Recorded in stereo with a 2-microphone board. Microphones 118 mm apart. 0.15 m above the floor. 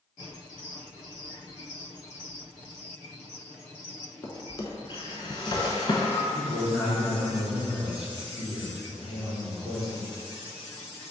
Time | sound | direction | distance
4.2 | a drawer | 45° left (ahead or behind) | 0.6 m
6.3 | a man speaking | 5° right (ahead or behind) | 1.5 m